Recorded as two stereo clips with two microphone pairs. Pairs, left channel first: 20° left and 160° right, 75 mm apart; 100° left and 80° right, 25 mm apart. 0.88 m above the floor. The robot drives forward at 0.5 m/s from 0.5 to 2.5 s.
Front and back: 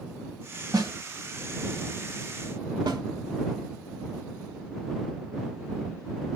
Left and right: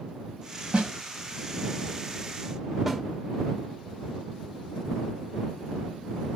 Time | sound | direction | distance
0.7 | a snare drum | 135° right | 2 m
2.9 | a snare drum | 165° right | 1.5 m